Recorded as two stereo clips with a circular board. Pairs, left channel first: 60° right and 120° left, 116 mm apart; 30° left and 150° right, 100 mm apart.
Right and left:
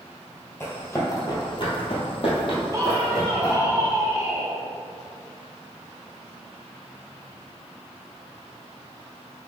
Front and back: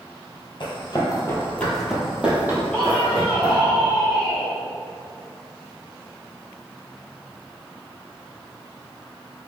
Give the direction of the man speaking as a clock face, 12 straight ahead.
9 o'clock.